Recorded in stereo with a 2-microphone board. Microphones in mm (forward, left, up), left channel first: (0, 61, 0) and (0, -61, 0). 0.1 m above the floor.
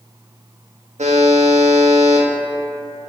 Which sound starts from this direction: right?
A buzzer, at 1.0 s.